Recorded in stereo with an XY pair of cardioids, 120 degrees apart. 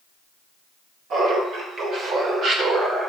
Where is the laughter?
55° right, 3.5 m; by 3.1 s 40° right, 2.5 m.